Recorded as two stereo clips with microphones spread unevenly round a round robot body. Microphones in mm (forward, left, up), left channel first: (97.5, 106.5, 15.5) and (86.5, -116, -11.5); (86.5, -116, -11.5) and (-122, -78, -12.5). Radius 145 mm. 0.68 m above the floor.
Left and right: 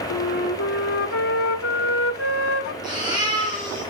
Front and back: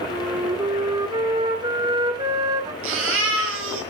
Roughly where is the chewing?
I don't hear chewing.